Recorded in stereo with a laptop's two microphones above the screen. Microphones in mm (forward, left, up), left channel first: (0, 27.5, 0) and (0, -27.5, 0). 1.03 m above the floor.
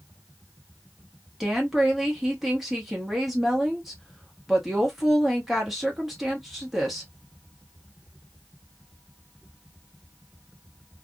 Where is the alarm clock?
I don't hear an alarm clock.